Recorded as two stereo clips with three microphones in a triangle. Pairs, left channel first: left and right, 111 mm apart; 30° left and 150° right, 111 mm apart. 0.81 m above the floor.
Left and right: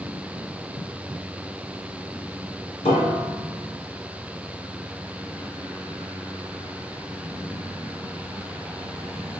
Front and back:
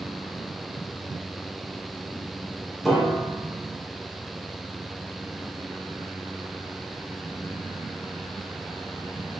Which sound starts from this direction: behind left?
A piano, at 2.9 s.